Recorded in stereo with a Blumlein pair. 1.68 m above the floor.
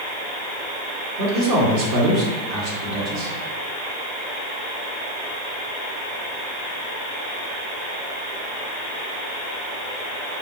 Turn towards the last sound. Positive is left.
turn(degrees=-45)